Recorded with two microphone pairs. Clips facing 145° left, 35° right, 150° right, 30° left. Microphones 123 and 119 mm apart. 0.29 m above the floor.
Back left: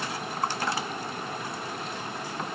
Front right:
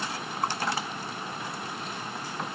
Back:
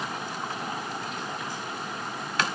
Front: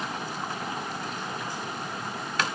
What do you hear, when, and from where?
Only background noise.